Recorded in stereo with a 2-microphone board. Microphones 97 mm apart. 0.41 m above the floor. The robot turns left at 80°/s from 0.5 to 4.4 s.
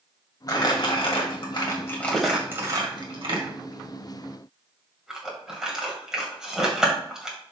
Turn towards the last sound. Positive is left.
turn(degrees=-5)  # may be behind; listen again after turning